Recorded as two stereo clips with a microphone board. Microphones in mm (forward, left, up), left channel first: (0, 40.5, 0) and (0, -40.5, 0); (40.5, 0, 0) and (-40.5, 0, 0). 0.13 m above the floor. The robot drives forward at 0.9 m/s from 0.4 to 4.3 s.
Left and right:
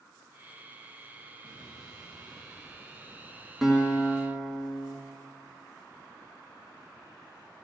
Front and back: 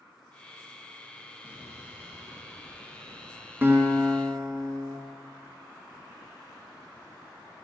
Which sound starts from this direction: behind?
A guitar, at 3.6 s.